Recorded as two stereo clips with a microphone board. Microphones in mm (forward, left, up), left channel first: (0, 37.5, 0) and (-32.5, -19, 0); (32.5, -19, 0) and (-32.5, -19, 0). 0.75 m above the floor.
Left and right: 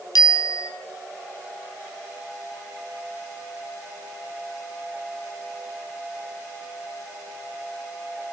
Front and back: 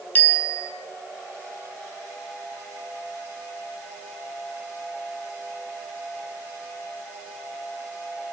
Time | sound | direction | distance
0.1 | a bicycle bell | 60° left | 4 m